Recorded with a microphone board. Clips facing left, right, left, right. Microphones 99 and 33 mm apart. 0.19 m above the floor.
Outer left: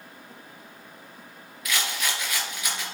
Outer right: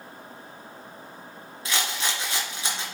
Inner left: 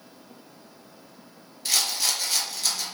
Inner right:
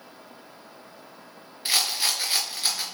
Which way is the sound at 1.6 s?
30° right (ahead or behind).